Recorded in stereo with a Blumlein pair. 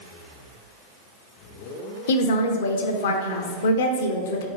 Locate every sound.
2.1 s a woman speaking: 60° left, 0.6 m